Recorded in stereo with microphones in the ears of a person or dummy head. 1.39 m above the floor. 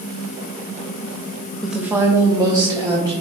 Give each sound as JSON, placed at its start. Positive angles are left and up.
{"t": 1.6, "sound": "a woman speaking", "side_deg": -5, "distance_m": 0.5}